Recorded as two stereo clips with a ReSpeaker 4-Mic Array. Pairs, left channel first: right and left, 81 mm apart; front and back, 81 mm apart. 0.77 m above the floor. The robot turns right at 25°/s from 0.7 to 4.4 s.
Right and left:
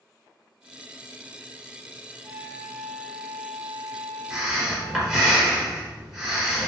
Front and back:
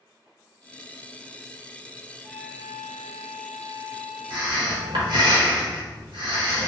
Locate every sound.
2.2 s a flute: 130° left, 0.9 m; by 5.3 s straight behind, 0.9 m
4.3 s breathing: 175° left, 0.9 m